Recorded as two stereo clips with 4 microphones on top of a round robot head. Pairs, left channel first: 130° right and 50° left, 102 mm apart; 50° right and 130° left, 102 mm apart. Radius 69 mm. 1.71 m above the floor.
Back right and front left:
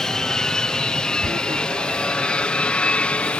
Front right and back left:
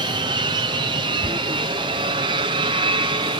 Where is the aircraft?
145° left; by 3.4 s 155° left.